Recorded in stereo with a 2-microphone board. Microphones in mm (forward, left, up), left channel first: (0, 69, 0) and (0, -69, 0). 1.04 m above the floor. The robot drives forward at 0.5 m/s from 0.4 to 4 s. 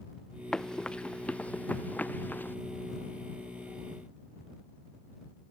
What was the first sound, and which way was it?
Running footsteps, 5° left (ahead or behind).